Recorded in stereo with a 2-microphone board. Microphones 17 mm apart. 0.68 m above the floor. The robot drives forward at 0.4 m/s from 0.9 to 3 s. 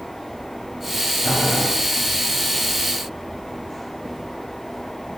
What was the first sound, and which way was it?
Boiling, 70° left (ahead or behind).